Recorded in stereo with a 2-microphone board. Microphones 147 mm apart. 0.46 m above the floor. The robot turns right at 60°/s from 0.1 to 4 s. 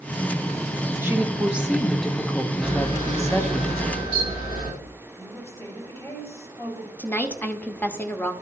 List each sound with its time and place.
1.0 s a woman speaking: 15° right (ahead or behind), 0.7 m; by 3.6 s 20° left (ahead or behind), 0.7 m
2.6 s a camera shutter: 5° left, 4 m; by 4.7 s 85° left, 4 m
5.2 s a woman speaking: 20° left (ahead or behind), 2.5 m
7.0 s a woman speaking: 10° left (ahead or behind), 0.8 m